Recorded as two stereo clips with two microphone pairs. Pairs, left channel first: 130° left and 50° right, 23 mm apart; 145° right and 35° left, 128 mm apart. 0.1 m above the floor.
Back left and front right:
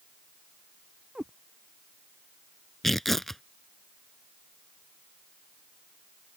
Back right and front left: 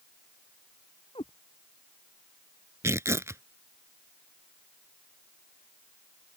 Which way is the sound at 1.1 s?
100° right.